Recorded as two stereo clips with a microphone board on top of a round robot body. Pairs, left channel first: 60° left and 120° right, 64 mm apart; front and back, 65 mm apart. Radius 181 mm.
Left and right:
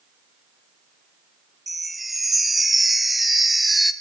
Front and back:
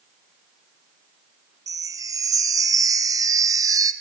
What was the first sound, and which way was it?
A chime, 150° left.